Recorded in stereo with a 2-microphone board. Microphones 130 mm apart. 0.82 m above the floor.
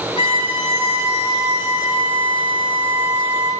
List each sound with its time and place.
0.2 s a violin: 45° left (ahead or behind), 1.8 m